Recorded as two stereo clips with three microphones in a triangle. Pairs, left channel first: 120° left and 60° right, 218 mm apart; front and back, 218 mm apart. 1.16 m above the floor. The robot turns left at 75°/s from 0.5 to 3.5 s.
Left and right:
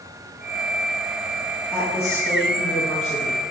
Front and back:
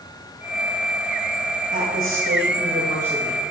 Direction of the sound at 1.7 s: 160° right.